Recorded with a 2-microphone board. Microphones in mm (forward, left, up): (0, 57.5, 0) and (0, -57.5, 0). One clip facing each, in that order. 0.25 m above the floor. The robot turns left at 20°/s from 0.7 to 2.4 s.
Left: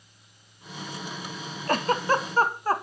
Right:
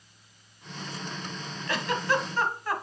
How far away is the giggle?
About 0.6 m.